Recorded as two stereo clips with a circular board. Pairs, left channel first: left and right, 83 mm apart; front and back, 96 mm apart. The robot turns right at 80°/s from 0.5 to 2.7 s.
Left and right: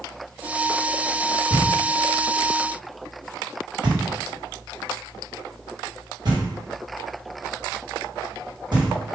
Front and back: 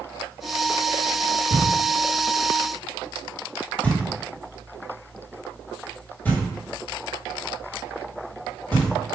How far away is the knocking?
About 1.9 m.